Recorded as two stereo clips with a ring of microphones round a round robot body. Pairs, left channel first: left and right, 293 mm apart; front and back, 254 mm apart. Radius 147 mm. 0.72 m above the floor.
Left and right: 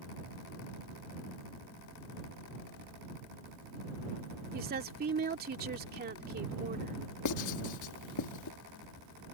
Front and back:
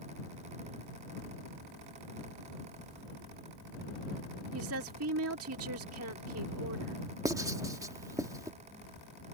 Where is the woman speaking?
145° right.